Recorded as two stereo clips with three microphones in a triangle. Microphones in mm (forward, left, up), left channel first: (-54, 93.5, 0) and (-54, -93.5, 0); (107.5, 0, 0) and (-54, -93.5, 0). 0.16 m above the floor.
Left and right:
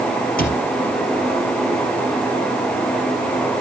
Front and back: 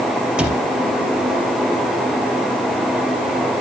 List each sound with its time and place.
0.4 s a cupboard door: 125° left, 3.5 m